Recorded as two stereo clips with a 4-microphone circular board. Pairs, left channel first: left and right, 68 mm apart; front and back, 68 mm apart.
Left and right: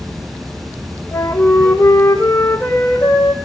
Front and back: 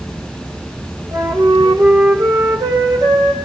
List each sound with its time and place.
0.0 s running water: 70° right, 2.5 m
1.1 s a flute: 155° left, 3.5 m